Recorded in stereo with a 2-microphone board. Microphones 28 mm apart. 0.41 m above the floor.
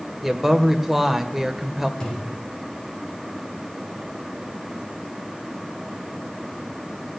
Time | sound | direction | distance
0.2 | a woman speaking | 10° right (ahead or behind) | 1.9 m
2.0 | a thud | 30° left (ahead or behind) | 8 m